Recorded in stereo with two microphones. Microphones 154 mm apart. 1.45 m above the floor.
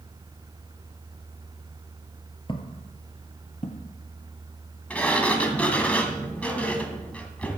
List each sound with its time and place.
2.5 s footsteps: 30° left (ahead or behind), 1.8 m; by 3.9 s 55° left (ahead or behind), 2.5 m
4.9 s a sliding door: 10° left (ahead or behind), 1.8 m